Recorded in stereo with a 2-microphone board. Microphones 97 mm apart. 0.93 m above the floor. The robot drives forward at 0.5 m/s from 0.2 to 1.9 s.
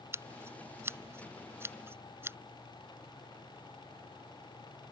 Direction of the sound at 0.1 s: 25° right (ahead or behind).